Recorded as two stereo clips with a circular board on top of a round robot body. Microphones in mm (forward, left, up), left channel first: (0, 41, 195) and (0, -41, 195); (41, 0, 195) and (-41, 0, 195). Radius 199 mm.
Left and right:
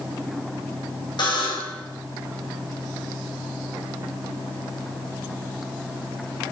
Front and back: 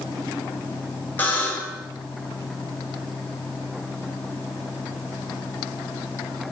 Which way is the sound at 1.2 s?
65° left.